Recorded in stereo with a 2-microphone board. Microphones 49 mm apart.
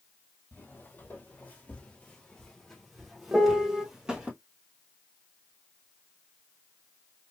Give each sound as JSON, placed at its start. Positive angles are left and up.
{"t": 0.5, "sound": "footsteps", "side_deg": 45, "distance_m": 2.0}
{"t": 3.3, "sound": "a piano", "side_deg": -15, "distance_m": 0.6}